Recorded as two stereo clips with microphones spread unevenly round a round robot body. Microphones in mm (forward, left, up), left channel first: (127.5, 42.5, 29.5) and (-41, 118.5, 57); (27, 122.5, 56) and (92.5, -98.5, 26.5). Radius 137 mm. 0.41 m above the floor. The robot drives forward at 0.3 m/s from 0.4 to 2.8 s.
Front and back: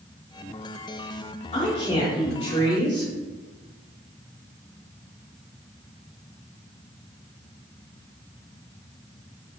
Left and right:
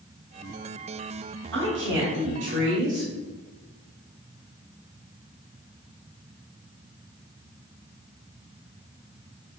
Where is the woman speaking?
70° right, 1.4 m; by 3.1 s 85° right, 1.4 m.